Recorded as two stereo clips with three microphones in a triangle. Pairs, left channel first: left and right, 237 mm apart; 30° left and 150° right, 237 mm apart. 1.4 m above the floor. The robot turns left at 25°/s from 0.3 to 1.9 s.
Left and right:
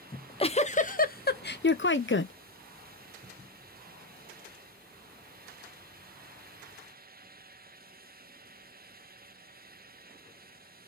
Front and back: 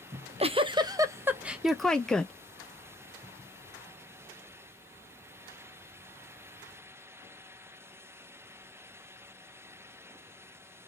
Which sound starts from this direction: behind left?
A giggle, at 0.1 s.